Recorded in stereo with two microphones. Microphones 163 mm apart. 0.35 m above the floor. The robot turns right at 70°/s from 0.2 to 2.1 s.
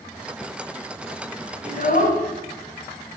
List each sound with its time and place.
1.6 s a child speaking: 55° left, 2 m; by 2.2 s 85° left, 2 m